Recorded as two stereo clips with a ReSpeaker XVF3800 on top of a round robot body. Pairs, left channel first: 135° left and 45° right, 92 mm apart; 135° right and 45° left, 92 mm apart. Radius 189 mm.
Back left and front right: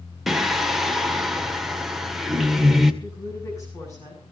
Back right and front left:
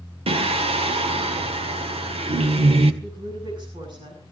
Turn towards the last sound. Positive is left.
turn(degrees=80)